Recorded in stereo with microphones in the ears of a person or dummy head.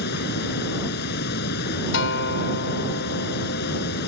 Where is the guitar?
70° left (ahead or behind).